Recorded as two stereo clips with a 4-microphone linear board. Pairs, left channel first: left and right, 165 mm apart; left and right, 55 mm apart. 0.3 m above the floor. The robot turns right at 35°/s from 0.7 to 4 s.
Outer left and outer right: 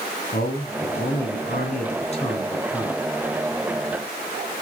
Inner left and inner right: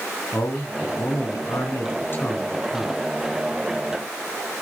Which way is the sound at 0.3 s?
85° left.